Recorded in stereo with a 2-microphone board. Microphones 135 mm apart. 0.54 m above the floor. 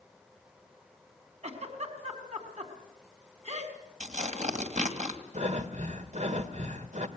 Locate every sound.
1.4 s a giggle: 55° right (ahead or behind), 4 m
4.0 s tearing paper: 65° right (ahead or behind), 2.5 m
5.3 s breathing: 60° right (ahead or behind), 1.7 m